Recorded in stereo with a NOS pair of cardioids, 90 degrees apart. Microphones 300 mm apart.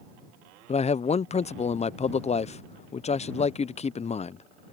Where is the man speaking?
25° left.